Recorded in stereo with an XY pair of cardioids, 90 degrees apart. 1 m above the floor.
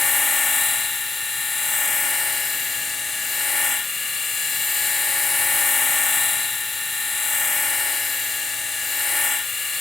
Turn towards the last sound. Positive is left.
turn(degrees=30)